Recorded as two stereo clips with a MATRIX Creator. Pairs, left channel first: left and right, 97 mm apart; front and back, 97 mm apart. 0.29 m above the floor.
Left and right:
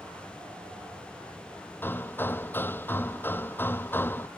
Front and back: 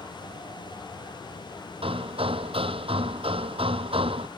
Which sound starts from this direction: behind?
Hammering, at 1.8 s.